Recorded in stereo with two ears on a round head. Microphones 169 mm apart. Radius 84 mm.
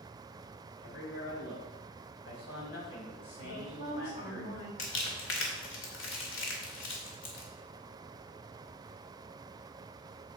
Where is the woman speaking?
60° left (ahead or behind), 3.5 m.